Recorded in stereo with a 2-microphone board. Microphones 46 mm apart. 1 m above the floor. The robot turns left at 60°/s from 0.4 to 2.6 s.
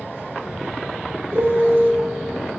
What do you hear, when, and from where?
1.3 s a piano: 70° right, 0.7 m; by 1.9 s 110° right, 0.7 m